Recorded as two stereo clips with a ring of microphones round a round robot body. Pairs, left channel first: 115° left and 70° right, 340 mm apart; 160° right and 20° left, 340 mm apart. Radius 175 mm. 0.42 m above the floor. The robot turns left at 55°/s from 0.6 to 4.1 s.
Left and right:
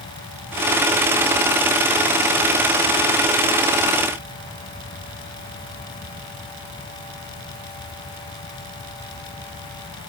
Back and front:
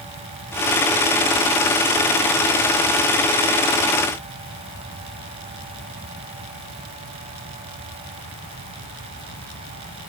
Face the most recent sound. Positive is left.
No sound to turn to.